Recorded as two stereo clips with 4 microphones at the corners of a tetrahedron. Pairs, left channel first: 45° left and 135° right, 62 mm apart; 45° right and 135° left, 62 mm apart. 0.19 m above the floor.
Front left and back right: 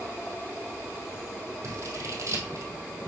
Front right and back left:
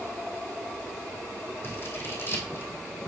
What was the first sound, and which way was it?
Scissors, 95° right.